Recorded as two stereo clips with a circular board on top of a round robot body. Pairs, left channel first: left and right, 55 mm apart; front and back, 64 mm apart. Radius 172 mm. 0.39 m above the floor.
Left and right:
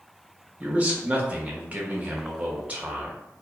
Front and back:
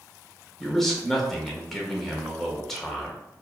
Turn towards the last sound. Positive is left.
turn(degrees=-85)